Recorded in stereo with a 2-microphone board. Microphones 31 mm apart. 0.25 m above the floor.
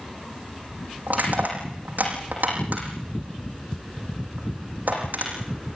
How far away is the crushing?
About 8 m.